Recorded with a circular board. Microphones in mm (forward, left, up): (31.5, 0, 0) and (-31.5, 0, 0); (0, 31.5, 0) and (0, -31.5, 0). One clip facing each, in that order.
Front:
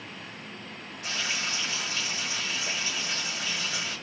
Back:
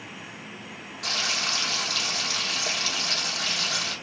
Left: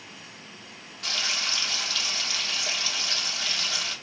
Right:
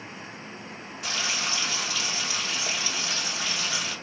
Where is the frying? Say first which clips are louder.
Back 2 dB, right 1 dB; 170° right, 3.5 m.